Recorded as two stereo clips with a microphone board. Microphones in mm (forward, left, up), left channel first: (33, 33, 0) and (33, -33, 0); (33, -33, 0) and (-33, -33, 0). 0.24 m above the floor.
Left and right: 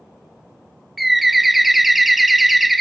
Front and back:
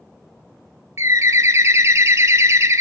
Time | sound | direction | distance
1.0 | a bird | straight behind | 0.6 m